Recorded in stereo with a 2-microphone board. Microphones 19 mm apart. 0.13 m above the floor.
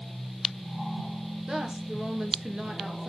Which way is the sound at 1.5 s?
35° right (ahead or behind).